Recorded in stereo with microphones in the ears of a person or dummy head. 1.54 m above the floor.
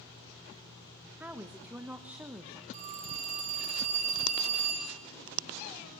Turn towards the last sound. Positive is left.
turn(degrees=-40)  # may be behind; listen again after turning